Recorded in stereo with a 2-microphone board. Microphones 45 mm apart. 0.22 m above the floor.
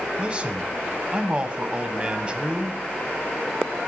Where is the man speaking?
25° right (ahead or behind), 1.1 m.